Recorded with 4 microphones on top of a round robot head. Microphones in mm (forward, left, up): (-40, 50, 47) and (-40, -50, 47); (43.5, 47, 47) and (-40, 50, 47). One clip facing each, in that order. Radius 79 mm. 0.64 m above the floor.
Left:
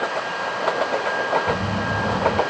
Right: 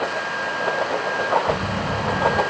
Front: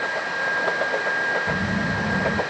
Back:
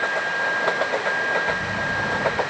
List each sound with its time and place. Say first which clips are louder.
1.5 s a phone buzzing: even, even; 35° left, 0.9 m